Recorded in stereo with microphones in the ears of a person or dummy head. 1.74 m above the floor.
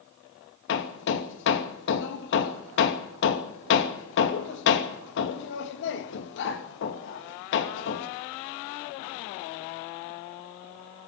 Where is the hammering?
70° left (ahead or behind), 2.5 m.